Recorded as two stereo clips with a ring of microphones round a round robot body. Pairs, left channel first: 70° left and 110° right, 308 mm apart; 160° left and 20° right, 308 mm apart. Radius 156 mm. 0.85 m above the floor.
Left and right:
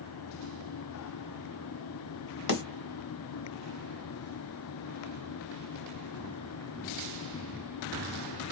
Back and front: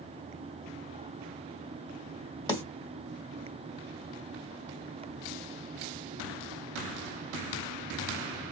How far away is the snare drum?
About 1.8 m.